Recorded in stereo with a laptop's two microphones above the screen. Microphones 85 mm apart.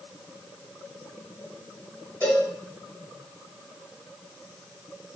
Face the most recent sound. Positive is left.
turn(degrees=15)  # may be behind; listen again after turning